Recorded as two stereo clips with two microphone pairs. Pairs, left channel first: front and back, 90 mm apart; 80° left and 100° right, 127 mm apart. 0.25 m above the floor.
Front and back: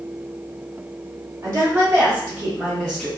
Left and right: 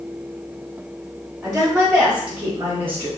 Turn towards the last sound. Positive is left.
turn(degrees=-55)